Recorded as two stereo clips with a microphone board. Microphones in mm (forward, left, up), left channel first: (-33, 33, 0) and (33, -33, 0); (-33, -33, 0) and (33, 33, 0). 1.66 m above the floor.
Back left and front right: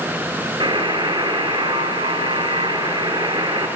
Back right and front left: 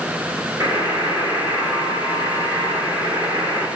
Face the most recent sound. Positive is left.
turn(degrees=-20)